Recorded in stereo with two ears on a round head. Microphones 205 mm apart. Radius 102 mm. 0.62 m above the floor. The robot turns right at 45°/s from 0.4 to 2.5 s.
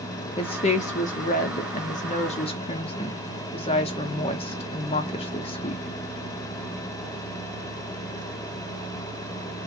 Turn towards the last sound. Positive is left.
turn(degrees=135)